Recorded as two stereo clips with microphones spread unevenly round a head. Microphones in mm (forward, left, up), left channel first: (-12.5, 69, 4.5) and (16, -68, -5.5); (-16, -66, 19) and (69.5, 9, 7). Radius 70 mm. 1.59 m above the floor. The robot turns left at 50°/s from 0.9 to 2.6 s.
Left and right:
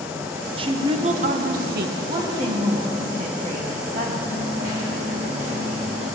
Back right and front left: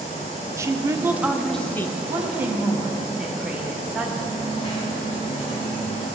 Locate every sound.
0.6 s a woman speaking: 25° right, 0.9 m; by 1.9 s 70° right, 0.9 m
2.0 s a woman speaking: 5° right, 1.8 m; by 4.2 s 40° right, 1.8 m
4.2 s a dropped coin: 115° right, 3 m